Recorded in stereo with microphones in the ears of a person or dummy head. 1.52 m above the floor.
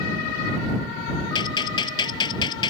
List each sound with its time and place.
1.4 s a gunshot: 30° left (ahead or behind)